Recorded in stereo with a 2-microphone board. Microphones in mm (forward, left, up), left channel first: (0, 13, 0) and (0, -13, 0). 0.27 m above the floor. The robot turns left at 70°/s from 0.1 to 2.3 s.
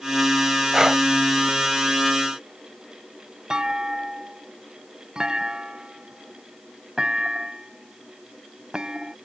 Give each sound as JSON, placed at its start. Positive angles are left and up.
{"t": 0.7, "sound": "breathing", "side_deg": -25}
{"t": 3.5, "sound": "a clunk", "side_deg": -30}